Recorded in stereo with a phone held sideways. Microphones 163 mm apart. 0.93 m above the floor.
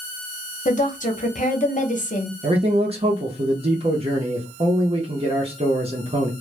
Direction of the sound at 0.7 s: 50° left (ahead or behind).